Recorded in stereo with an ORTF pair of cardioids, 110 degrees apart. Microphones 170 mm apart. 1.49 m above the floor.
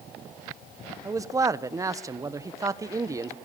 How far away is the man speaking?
About 1.2 m.